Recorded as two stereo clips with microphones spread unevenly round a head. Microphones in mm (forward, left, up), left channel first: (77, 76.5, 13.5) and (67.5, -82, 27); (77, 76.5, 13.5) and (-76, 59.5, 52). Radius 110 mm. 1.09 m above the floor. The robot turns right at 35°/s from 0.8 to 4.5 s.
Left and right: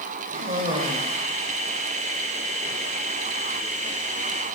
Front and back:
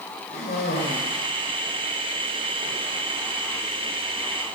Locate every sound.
0.3 s a cough: 45° right, 4.5 m; by 2.8 s 25° left, 4.5 m